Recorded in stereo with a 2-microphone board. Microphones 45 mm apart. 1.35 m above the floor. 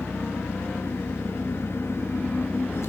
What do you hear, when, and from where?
0.0 s an engine running: 80° left, 1.8 m